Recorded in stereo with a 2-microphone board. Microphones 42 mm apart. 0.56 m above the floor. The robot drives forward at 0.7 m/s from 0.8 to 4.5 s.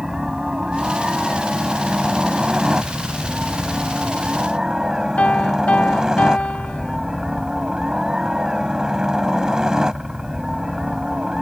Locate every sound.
0.0 s a helicopter: 15° right (ahead or behind)
5.2 s a piano: 35° left (ahead or behind)